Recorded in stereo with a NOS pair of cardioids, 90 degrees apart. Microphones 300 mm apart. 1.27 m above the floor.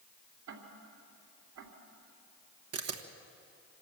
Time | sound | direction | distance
0.5 | ticking | 70° right | 3 m
2.7 | a camera shutter | 55° right | 1.4 m